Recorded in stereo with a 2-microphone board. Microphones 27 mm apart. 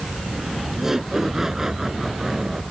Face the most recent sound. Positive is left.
turn(degrees=-15)  # may be behind; listen again after turning